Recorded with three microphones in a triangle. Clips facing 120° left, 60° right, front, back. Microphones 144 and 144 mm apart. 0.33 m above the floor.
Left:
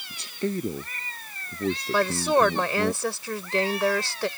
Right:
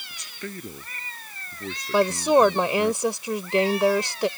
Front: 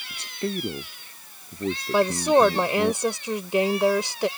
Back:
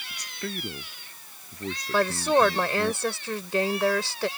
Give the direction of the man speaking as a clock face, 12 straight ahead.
10 o'clock.